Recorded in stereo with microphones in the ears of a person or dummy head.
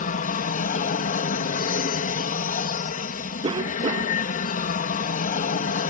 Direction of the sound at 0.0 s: 40° left (ahead or behind).